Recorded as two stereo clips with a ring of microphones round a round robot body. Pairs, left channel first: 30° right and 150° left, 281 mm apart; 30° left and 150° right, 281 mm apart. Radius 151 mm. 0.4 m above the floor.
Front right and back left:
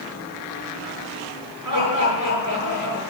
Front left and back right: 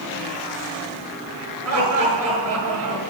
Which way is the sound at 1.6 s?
175° left.